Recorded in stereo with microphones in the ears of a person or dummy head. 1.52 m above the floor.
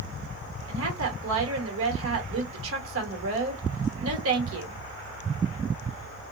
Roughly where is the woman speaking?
Right.